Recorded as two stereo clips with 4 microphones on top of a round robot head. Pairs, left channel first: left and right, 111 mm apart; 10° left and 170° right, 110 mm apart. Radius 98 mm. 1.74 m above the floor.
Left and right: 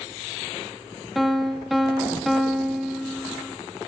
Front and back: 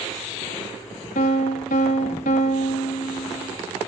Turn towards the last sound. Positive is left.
turn(degrees=0)